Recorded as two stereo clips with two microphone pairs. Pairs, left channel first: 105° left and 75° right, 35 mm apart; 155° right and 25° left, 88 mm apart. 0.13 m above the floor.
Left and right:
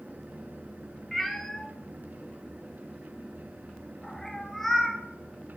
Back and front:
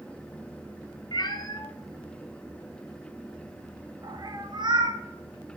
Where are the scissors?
No scissors in this recording.